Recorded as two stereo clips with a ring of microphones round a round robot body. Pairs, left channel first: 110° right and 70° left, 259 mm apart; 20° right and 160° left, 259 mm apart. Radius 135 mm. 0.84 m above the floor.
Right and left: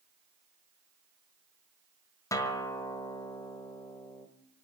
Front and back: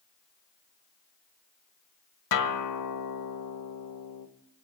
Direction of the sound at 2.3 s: 35° right.